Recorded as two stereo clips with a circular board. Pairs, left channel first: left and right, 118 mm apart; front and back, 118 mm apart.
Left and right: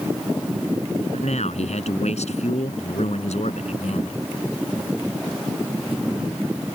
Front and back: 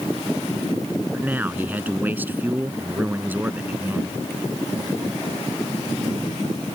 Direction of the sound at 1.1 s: 105° left.